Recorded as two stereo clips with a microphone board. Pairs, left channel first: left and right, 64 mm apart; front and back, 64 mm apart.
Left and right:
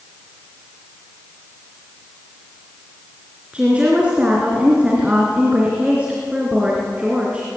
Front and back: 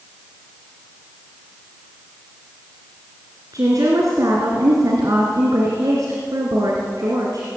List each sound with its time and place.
3.5 s a woman speaking: 160° right, 3.5 m